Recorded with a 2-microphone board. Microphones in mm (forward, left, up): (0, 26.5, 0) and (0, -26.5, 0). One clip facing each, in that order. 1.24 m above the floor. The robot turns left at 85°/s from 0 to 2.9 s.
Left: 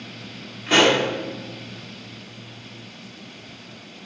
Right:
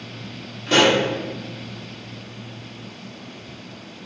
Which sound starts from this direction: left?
A pop, at 0.7 s.